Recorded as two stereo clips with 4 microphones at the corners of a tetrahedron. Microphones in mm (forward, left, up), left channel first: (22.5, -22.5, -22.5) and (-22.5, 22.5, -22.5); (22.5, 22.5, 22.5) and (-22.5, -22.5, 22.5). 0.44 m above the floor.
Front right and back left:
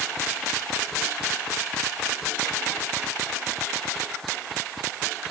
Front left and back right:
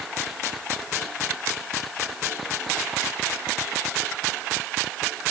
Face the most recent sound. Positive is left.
No sound to turn to.